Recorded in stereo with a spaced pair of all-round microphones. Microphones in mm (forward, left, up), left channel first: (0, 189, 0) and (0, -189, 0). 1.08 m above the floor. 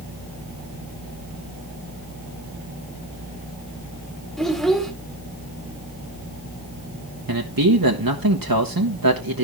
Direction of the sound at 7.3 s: 65° right (ahead or behind).